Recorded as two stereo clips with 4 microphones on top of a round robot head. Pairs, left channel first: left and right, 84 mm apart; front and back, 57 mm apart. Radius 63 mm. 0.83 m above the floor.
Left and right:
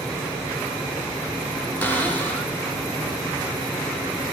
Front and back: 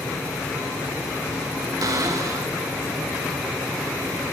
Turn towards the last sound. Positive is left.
turn(degrees=160)